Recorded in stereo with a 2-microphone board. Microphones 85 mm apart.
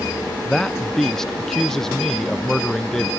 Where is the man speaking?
5° left (ahead or behind).